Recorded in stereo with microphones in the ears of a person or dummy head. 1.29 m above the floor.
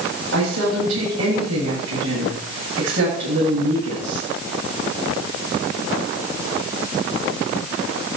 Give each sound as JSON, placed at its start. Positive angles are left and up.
{"t": 0.3, "sound": "a woman speaking", "side_deg": -85, "distance_m": 7.5}